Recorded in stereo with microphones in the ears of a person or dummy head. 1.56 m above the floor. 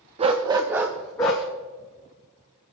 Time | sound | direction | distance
0.2 | a dog barking | 30° right (ahead or behind) | 1.1 m